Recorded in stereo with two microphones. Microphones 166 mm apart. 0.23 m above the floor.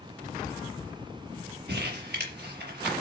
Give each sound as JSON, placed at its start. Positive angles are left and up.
{"t": 1.7, "sound": "crumpling", "side_deg": -75, "distance_m": 5.0}